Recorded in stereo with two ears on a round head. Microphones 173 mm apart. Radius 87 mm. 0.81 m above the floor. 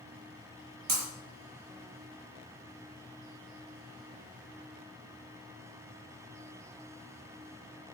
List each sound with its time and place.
0.9 s breaking glass: 55° right (ahead or behind), 7.5 m